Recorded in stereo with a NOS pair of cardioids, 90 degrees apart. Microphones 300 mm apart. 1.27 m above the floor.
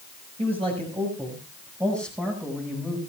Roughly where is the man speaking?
Ahead.